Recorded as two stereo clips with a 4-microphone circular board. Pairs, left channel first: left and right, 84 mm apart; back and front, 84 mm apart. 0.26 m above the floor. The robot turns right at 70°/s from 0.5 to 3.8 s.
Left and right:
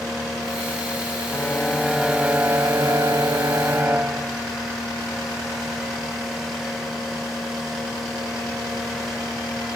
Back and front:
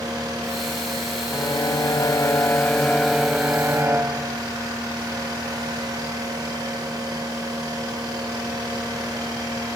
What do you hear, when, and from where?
1.3 s a violin: 145° left; by 4.4 s 40° right